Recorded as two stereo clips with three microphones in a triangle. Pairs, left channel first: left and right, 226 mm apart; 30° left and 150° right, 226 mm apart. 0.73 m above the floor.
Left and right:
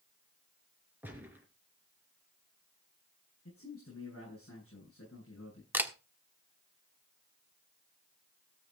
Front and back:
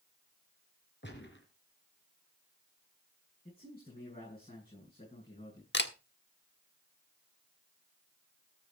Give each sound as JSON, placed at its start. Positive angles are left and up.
{"t": 1.0, "sound": "a gunshot", "azimuth_deg": -10, "distance_m": 3.5}
{"t": 3.5, "sound": "a man speaking", "azimuth_deg": 95, "distance_m": 10.0}
{"t": 5.7, "sound": "a camera shutter", "azimuth_deg": -10, "distance_m": 1.2}